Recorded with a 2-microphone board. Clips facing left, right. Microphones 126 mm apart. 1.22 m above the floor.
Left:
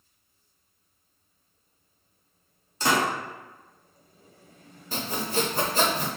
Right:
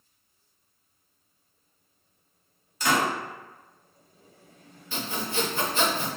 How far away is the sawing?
About 0.7 m.